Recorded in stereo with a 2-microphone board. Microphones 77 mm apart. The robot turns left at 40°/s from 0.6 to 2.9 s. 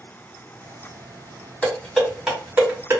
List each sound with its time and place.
1.6 s dishes clattering: 15° left (ahead or behind), 1.5 m; by 3.0 s 35° right (ahead or behind), 1.5 m